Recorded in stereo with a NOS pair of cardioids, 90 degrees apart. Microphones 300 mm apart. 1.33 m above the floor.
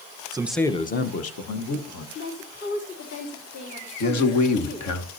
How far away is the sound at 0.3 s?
About 1.0 m.